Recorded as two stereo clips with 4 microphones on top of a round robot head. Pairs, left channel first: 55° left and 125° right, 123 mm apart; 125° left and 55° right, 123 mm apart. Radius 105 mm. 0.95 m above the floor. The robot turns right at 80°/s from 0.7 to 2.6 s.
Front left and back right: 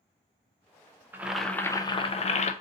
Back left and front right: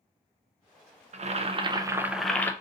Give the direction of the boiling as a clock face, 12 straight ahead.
2 o'clock.